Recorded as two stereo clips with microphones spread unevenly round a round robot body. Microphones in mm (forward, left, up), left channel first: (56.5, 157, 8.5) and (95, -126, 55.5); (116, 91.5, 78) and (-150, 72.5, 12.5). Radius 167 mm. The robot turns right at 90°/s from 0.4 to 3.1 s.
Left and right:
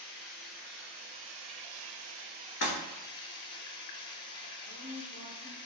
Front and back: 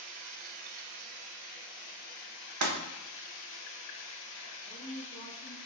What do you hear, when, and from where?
0.0 s running water: 155° left, 0.8 m; by 5.7 s 40° left, 0.8 m
2.6 s breaking glass: 160° left, 0.9 m; by 2.8 s 170° left, 0.9 m
4.7 s a woman speaking: 90° right, 1.3 m